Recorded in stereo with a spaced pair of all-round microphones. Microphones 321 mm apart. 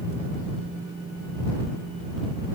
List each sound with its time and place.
Only background noise.